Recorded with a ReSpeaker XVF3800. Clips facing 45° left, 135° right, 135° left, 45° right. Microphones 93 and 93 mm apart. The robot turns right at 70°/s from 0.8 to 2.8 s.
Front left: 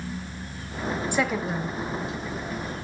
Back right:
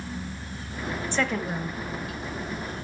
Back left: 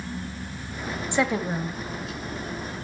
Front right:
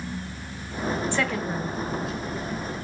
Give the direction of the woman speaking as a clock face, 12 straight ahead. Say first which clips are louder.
Even, back left 2 dB; 9 o'clock.